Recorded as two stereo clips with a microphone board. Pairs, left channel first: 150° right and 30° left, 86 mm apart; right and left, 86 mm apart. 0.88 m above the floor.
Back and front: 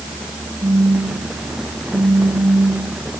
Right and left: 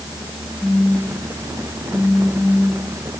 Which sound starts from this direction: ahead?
A phone buzzing, at 0.6 s.